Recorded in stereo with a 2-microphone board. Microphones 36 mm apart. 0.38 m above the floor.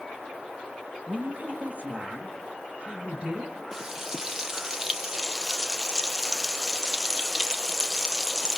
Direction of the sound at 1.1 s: 50° right (ahead or behind).